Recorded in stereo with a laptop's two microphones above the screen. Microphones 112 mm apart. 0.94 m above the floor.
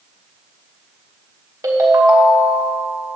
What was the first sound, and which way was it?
A ringtone, 35° right (ahead or behind).